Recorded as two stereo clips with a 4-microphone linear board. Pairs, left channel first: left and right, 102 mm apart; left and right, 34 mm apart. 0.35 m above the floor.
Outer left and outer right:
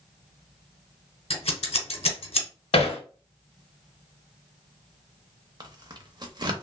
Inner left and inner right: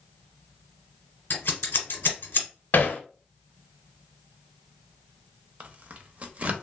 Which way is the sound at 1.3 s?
80° left.